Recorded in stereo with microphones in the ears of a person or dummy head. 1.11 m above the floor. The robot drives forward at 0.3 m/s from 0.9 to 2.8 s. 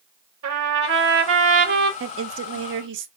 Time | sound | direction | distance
0.4 | a trumpet | 70° right (ahead or behind) | 2.5 m
2.0 | a woman speaking | 70° right (ahead or behind) | 0.7 m